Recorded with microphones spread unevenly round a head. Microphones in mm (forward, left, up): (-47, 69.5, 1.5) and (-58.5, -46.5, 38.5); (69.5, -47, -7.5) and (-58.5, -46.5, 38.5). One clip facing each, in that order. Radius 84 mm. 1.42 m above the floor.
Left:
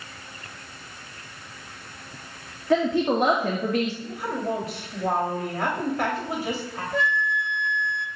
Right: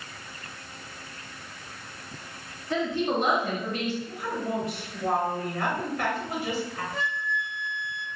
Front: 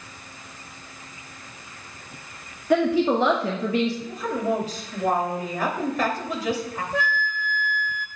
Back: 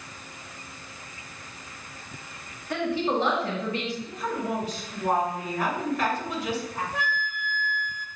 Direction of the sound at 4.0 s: 15° left.